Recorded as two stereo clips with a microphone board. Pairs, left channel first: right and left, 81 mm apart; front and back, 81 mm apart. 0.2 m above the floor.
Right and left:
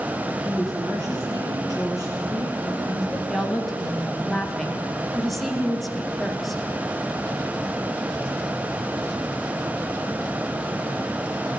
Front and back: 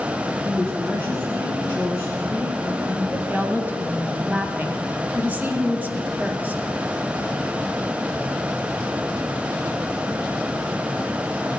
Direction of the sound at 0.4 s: 125° left.